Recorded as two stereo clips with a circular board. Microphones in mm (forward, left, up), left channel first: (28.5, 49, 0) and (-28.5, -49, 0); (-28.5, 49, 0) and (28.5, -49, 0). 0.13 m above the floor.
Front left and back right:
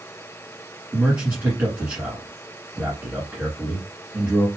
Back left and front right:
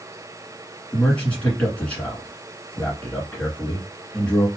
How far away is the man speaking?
About 1.7 m.